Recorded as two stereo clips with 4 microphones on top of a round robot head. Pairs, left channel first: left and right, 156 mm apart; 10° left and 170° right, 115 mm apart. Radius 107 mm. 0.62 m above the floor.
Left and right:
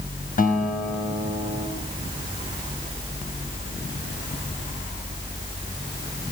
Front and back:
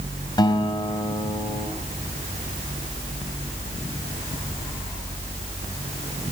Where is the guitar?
60° left, 4.5 m.